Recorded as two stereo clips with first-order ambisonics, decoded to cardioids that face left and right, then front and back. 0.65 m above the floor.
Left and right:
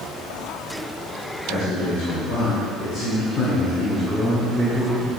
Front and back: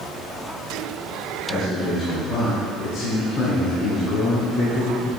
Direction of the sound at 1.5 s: 65° left.